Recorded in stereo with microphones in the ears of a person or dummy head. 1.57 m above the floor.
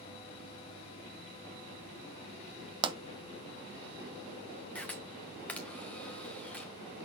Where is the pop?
30° right (ahead or behind), 0.9 m.